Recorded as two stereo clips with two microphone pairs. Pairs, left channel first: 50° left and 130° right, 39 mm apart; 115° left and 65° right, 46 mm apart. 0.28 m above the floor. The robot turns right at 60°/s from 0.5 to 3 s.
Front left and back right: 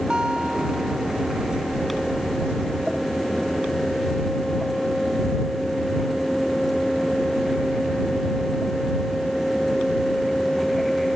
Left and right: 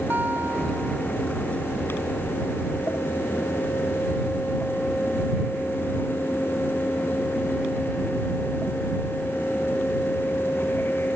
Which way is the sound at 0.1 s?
75° right.